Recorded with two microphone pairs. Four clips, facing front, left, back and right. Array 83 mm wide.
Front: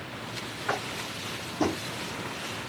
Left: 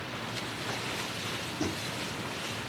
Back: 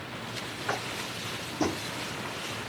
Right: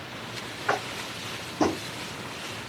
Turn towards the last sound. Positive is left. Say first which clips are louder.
# right 11 dB, front 2 dB
turn(degrees=-80)